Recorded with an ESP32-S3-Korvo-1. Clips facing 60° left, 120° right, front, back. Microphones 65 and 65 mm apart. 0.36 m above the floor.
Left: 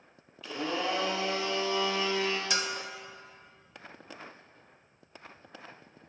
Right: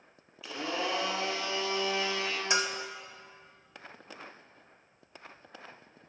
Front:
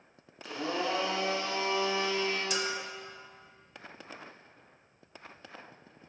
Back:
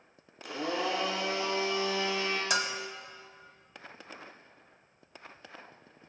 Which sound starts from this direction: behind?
A bell, at 2.5 s.